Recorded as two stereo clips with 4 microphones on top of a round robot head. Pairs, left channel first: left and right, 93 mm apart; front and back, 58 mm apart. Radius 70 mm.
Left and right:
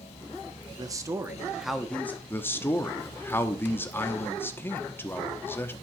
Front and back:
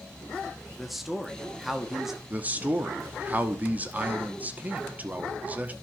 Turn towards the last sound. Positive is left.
turn(degrees=140)